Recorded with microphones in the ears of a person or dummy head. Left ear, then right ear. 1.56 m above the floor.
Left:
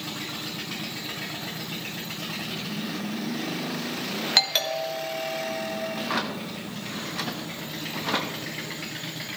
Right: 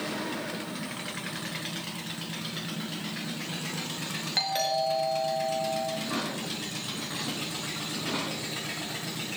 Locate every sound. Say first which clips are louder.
4.4 s a doorbell: left 4 dB; 40° left (ahead or behind), 2 m
5.9 s a drawer: left 4 dB; 25° left (ahead or behind), 1.1 m